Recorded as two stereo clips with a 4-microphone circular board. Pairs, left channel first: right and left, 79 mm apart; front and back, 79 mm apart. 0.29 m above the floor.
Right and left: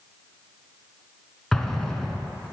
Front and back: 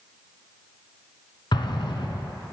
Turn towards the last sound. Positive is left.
turn(degrees=-5)